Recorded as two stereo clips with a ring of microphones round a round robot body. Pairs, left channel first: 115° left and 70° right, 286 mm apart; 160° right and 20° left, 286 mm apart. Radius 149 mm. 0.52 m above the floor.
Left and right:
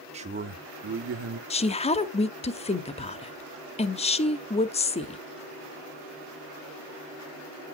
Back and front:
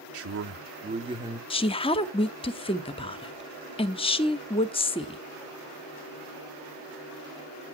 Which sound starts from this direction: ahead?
A man speaking, at 0.1 s.